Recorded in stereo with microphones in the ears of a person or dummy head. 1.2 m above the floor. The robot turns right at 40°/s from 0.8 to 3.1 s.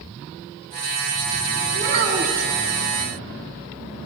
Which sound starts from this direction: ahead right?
A child speaking, at 1.7 s.